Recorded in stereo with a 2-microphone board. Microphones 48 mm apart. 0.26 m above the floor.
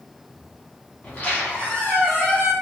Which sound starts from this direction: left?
A squeak, at 1.0 s.